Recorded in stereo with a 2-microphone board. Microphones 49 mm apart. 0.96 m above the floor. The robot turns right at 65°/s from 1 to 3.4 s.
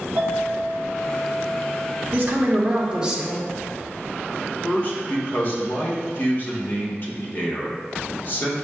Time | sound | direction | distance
0.2 | a clink | 120° right | 1.2 m
2.1 | a woman speaking | 80° right | 1.1 m
4.6 | a man speaking | 50° left (ahead or behind) | 1.1 m